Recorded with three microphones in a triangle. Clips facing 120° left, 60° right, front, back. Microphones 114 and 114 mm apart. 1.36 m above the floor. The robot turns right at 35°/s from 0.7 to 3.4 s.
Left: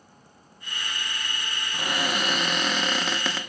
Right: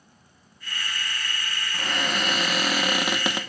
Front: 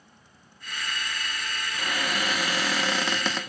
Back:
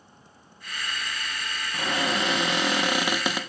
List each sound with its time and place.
1.7 s a cupboard door: 170° right, 0.9 m; by 3.4 s 110° right, 0.9 m